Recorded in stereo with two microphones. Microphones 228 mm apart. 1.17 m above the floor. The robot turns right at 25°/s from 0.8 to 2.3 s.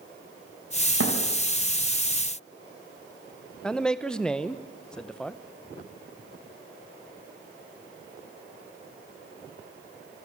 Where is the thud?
70° right (ahead or behind), 3 m; by 1.2 s 75° right (ahead or behind), 3 m.